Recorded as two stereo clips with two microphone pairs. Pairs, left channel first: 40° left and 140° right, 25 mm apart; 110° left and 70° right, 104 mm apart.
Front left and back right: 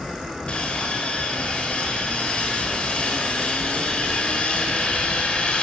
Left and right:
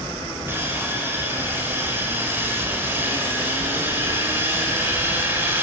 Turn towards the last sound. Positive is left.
turn(degrees=0)